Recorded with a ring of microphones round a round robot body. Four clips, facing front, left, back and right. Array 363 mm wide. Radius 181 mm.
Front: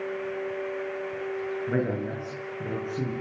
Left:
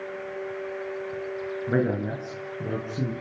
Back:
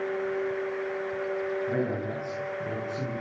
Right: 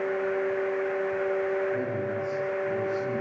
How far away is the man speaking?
About 9 m.